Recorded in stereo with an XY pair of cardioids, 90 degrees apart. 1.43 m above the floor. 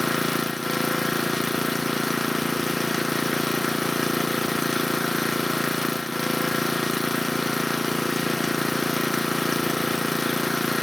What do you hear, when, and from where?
0.0 s an engine running: 5° left, 0.8 m